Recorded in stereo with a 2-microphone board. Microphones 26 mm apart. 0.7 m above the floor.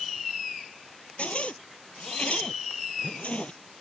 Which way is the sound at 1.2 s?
60° left (ahead or behind).